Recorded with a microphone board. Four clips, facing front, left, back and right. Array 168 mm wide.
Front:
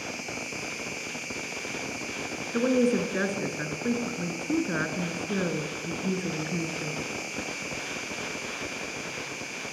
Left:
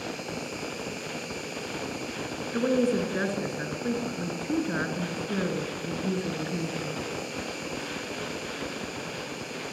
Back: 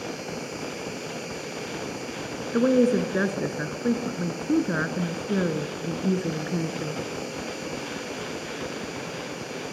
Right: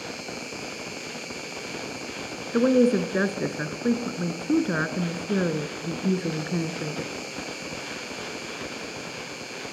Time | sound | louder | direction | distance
0.0 | an insect | left 1 dB, back 4 dB | 10° right | 3.5 m
2.5 | a woman speaking | right 5 dB, back 4 dB | 125° right | 1.6 m